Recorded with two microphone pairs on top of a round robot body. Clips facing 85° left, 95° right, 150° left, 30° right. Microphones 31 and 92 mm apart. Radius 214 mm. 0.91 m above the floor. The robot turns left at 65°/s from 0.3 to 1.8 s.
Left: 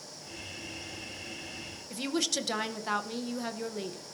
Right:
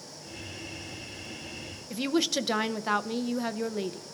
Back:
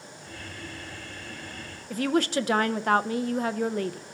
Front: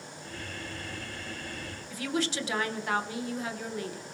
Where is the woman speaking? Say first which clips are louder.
Right 4 dB, back 7 dB; 175° right, 0.6 m.